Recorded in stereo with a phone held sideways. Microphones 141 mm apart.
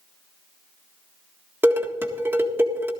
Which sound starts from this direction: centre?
Dishes clattering, at 1.6 s.